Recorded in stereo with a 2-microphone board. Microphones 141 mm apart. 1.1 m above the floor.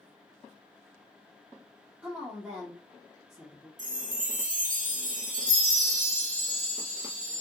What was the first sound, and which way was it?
A woman speaking, 15° right (ahead or behind).